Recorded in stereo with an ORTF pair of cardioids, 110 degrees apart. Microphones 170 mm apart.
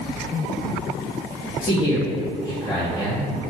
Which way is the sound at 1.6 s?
15° left.